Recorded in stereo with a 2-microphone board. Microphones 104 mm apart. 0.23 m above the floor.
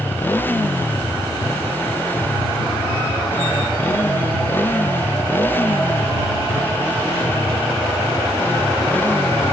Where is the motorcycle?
20° left (ahead or behind).